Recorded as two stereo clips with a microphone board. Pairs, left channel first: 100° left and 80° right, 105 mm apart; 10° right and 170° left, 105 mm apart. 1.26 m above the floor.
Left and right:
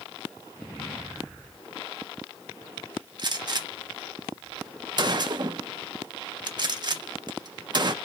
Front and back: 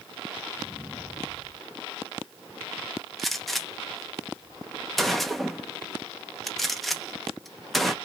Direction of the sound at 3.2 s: 100° right.